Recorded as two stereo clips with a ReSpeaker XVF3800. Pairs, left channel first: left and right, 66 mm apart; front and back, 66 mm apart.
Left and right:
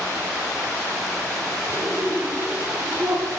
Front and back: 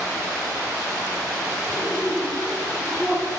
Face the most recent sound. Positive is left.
turn(degrees=-75)